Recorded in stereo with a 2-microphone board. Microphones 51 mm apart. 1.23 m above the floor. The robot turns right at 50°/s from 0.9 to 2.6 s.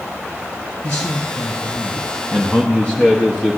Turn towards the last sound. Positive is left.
turn(degrees=160)